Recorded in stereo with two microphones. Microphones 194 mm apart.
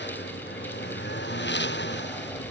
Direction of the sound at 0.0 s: 65° left (ahead or behind).